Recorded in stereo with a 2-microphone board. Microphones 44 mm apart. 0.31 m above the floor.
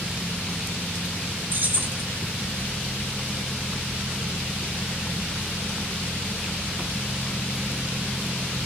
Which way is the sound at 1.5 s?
45° right (ahead or behind).